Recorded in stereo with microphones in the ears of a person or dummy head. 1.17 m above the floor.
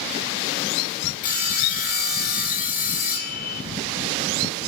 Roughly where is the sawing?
Left.